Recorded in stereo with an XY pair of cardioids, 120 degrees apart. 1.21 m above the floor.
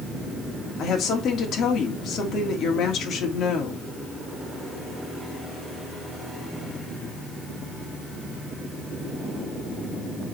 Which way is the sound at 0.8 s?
55° left.